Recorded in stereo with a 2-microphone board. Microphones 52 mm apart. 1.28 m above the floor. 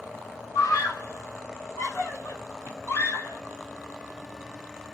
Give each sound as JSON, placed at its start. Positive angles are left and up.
{"t": 0.6, "sound": "a scream", "side_deg": 80, "distance_m": 1.1}